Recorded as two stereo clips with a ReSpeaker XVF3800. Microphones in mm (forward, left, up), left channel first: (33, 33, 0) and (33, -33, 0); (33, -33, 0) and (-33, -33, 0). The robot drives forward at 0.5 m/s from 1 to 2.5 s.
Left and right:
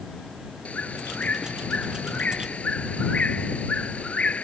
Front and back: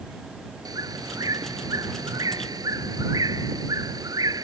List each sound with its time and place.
0.7 s a bird: 160° left